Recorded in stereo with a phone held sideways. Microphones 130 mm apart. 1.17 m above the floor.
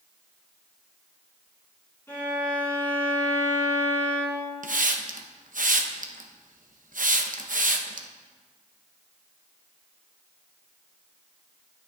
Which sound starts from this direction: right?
A hiss, at 4.6 s.